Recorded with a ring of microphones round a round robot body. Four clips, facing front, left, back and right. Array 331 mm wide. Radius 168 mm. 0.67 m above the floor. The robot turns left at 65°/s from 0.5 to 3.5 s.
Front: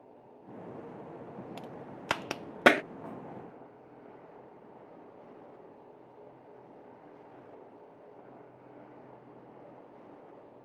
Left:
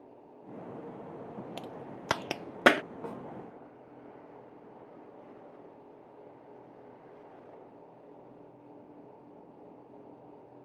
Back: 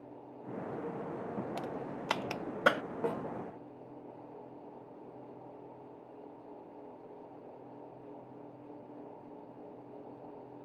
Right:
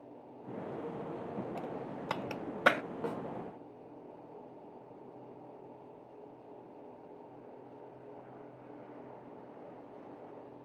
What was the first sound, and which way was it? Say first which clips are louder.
A crack: right 2 dB, back 5 dB; 110° left.